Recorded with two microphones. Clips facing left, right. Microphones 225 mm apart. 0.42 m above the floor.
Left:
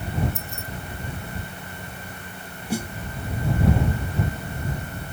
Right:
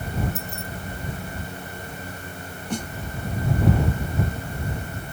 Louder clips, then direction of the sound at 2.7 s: Left 2 dB; 10° left (ahead or behind).